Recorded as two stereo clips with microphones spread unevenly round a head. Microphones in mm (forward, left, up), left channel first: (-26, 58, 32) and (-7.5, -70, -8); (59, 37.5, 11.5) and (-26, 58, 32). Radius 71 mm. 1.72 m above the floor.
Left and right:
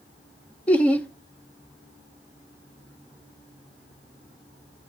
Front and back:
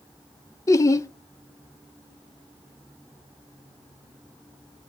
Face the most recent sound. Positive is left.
turn(degrees=40)